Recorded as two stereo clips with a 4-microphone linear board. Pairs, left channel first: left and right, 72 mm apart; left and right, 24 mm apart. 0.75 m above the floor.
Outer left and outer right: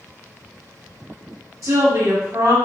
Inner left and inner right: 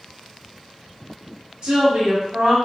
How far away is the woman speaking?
About 1.2 m.